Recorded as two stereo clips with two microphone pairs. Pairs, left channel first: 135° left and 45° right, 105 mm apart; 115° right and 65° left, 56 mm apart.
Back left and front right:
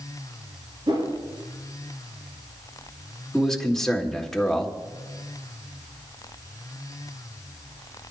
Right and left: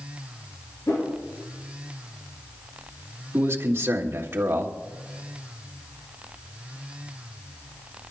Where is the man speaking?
50° left, 1.5 m.